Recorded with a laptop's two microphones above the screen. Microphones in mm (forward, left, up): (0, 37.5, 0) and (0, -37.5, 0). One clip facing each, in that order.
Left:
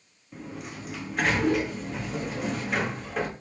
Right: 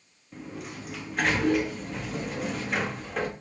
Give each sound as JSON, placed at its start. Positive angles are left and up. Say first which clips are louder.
{"t": 0.3, "sound": "a sliding door", "louder": "even", "side_deg": 0, "distance_m": 0.9}